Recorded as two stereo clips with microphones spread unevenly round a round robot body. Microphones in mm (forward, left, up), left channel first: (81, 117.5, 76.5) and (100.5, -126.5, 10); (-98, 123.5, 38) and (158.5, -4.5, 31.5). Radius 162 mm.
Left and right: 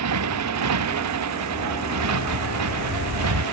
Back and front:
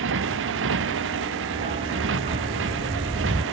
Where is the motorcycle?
80° right.